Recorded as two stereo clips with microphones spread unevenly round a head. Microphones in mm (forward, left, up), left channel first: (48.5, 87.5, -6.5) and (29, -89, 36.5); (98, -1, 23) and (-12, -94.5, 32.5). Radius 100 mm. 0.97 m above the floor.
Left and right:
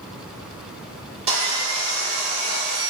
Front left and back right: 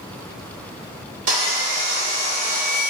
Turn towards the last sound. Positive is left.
turn(degrees=-160)